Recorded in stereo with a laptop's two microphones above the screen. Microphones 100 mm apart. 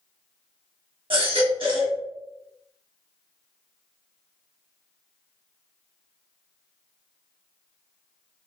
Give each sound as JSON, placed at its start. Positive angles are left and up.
{"t": 1.1, "sound": "a baby crying", "side_deg": -60, "distance_m": 1.1}